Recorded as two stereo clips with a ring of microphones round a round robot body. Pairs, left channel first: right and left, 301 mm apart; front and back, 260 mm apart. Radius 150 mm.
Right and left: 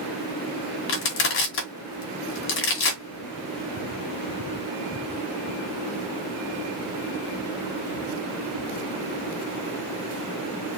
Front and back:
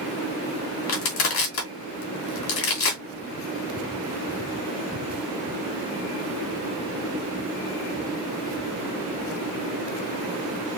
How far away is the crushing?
About 2.5 m.